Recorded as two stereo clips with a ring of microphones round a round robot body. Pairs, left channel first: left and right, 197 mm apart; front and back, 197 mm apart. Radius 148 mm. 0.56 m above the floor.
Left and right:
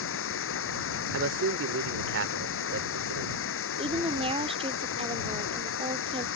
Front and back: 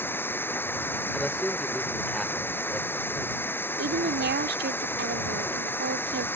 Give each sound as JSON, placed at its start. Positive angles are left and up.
{"t": 0.0, "sound": "running water", "azimuth_deg": 80}
{"t": 1.1, "sound": "a man speaking", "azimuth_deg": -90}
{"t": 3.8, "sound": "a woman speaking", "azimuth_deg": -150}